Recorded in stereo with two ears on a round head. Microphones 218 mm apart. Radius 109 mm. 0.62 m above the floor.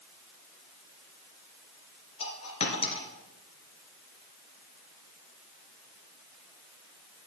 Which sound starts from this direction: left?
A dropped coin, at 2.2 s.